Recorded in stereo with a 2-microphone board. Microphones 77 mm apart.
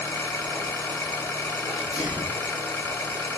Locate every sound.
0.0 s an engine running: 30° left (ahead or behind), 1.1 m
1.7 s a sneeze: 15° right (ahead or behind), 0.9 m